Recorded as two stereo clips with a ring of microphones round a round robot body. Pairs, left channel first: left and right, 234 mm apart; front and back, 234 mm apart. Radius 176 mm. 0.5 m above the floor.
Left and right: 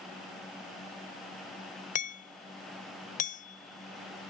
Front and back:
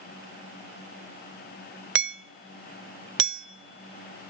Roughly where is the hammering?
Behind left.